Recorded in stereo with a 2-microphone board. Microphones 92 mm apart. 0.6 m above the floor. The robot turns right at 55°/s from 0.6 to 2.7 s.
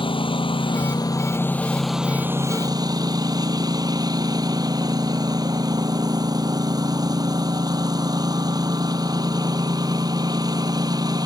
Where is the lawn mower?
110° left; by 11.3 s 135° right.